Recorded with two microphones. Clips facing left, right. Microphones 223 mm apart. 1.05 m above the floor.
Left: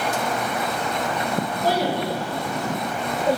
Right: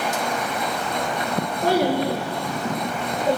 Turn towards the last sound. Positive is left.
turn(degrees=5)  # may be behind; listen again after turning